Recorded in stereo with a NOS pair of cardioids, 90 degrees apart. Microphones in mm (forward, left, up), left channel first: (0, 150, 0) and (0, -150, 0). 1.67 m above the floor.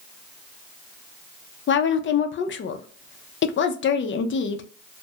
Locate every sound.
1.7 s a woman speaking: 40° left, 0.5 m